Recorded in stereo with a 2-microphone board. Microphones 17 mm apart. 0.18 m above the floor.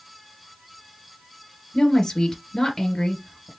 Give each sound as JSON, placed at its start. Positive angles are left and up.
{"t": 1.7, "sound": "a woman speaking", "side_deg": 45, "distance_m": 2.5}